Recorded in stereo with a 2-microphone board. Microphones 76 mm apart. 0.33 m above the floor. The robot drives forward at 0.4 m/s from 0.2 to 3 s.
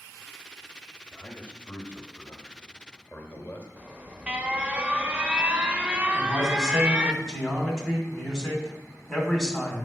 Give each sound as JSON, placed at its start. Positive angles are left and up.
{"t": 1.1, "sound": "a man speaking", "side_deg": 20, "distance_m": 1.4}
{"t": 3.8, "sound": "an alarm", "side_deg": -20, "distance_m": 0.5}
{"t": 6.1, "sound": "a man speaking", "side_deg": 5, "distance_m": 2.5}